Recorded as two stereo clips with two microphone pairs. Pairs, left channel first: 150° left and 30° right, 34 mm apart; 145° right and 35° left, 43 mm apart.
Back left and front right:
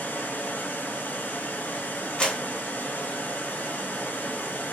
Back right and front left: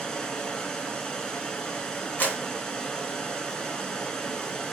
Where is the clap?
165° right, 1.1 m.